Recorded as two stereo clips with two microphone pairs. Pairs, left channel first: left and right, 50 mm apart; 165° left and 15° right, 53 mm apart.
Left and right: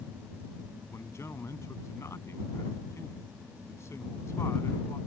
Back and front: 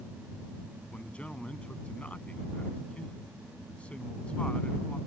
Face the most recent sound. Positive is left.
turn(degrees=95)